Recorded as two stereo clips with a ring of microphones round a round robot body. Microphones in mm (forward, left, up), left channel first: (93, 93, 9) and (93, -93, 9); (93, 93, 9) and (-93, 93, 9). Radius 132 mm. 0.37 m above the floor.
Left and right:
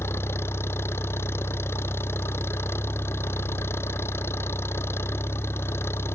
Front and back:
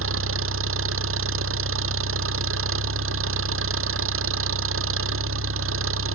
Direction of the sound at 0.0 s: 170° left.